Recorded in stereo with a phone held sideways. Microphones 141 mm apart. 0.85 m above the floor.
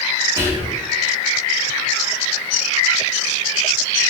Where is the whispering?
20° right (ahead or behind), 1.0 m.